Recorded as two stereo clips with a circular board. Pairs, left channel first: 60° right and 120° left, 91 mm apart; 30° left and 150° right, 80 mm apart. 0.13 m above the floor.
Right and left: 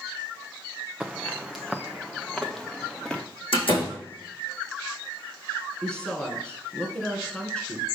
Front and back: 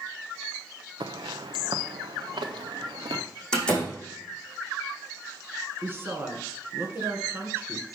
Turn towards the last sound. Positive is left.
turn(degrees=-125)